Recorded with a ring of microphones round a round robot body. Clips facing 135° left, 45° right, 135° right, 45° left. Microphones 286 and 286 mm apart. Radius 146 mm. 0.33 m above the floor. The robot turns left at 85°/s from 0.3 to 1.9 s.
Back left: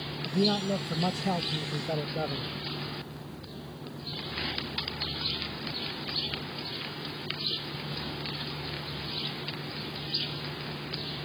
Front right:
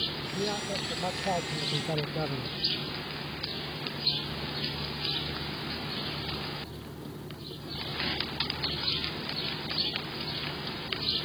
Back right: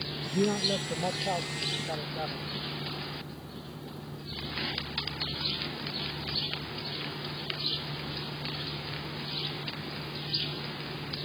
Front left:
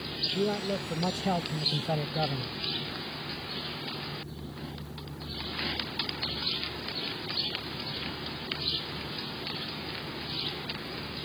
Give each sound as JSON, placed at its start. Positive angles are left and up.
{"t": 0.2, "sound": "a man speaking", "azimuth_deg": 170}